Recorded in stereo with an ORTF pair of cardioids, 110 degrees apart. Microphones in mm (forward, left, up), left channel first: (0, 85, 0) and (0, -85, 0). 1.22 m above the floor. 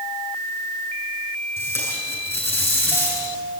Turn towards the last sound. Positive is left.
turn(degrees=15)